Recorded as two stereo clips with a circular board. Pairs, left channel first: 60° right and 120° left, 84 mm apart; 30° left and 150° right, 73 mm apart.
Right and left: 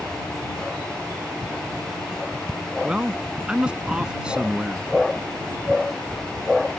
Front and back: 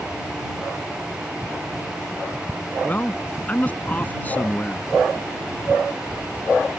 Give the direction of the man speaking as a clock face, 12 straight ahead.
10 o'clock.